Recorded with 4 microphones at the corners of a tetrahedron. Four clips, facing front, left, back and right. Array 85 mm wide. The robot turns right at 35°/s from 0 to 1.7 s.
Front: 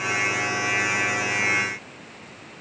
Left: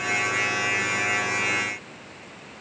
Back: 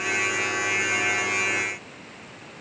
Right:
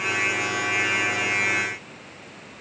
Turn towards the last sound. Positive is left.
No sound to turn to.